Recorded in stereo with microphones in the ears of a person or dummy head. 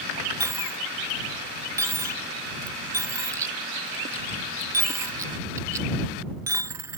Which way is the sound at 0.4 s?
20° right (ahead or behind).